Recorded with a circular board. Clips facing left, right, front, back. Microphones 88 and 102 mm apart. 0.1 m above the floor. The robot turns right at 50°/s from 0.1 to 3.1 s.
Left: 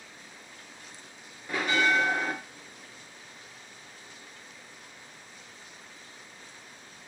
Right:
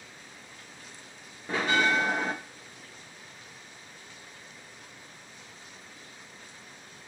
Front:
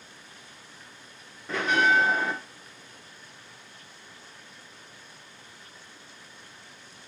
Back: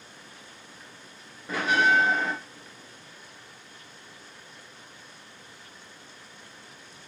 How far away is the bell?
About 1.4 m.